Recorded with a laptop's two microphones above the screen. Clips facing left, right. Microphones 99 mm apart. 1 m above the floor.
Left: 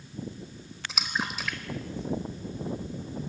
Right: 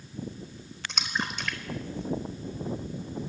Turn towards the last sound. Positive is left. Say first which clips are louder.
# even
turn(degrees=5)  # may be behind; listen again after turning